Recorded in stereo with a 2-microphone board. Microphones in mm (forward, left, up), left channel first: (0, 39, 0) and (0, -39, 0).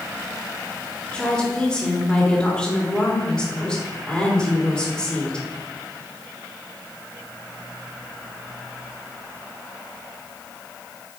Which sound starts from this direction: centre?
A woman speaking, at 1.1 s.